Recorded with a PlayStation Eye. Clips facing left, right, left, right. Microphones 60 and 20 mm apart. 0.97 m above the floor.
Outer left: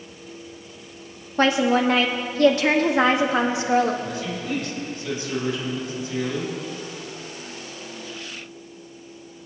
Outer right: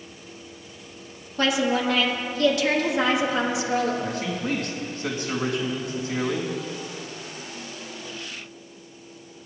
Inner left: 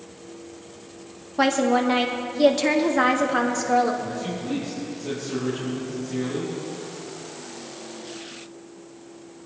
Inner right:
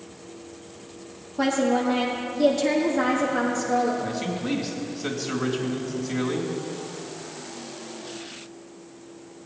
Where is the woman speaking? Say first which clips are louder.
Outer left 4 dB, inner left 2 dB; 40° left (ahead or behind), 1.4 m.